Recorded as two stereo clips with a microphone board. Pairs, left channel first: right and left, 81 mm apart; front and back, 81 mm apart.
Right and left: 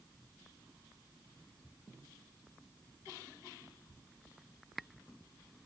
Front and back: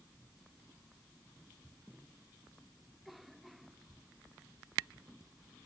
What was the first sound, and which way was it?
Only background noise.